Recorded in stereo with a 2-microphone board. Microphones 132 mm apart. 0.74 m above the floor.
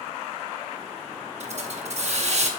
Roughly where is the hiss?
Right.